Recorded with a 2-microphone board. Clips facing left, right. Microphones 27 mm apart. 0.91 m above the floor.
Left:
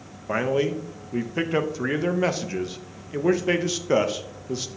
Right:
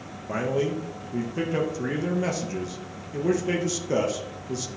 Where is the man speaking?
30° left (ahead or behind), 0.7 m.